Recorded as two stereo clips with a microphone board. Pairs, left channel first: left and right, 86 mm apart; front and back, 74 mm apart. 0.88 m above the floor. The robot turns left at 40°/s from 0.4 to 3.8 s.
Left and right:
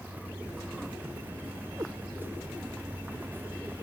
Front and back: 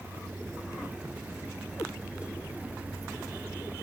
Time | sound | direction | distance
1.8 | a cat meowing | 45° right | ?